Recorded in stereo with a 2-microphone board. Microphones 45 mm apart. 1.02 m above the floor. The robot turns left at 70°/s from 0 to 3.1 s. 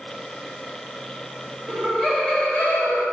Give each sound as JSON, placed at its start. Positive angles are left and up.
{"t": 1.7, "sound": "laughter", "azimuth_deg": -170, "distance_m": 1.1}